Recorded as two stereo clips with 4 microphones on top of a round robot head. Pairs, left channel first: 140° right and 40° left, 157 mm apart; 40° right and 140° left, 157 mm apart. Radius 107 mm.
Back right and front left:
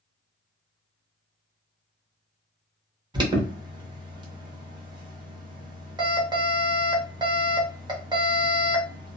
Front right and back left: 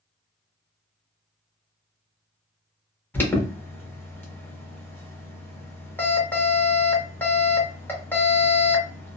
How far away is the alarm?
About 1.1 m.